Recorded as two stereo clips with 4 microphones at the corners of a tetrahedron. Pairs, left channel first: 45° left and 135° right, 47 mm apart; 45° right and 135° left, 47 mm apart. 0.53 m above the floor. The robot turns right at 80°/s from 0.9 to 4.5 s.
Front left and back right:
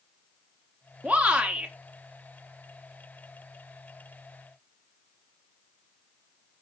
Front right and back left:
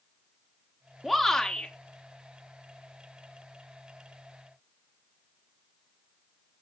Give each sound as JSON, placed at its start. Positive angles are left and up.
{"t": 1.0, "sound": "a shout", "azimuth_deg": -125, "distance_m": 0.8}